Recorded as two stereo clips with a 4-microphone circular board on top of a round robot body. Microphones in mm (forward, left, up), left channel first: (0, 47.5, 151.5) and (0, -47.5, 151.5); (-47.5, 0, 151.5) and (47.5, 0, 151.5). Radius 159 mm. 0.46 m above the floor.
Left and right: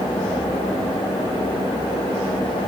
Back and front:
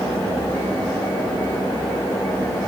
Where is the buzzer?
I don't hear a buzzer.